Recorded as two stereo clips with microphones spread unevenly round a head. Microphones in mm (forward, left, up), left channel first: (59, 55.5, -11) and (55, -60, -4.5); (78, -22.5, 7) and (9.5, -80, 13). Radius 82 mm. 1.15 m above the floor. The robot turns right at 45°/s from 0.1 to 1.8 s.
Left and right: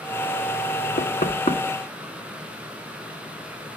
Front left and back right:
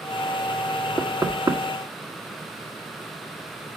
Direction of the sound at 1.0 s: 125° left.